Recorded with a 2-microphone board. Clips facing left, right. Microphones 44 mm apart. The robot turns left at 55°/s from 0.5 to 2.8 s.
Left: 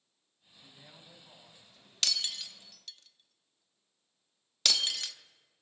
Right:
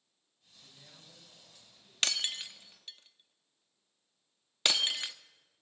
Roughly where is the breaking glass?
Right.